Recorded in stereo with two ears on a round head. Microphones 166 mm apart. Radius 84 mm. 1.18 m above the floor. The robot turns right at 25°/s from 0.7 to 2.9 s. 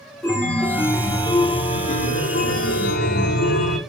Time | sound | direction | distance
0.2 | a chime | 5° left | 1.3 m